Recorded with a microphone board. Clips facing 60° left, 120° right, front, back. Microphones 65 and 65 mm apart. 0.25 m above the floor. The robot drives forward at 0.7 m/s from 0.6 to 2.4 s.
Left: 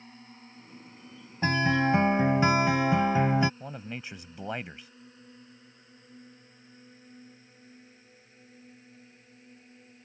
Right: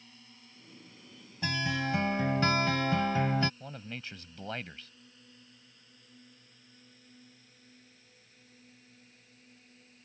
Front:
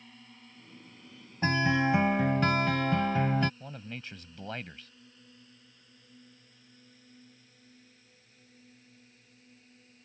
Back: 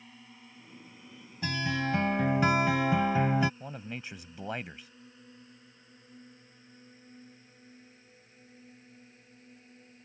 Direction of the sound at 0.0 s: 100° left.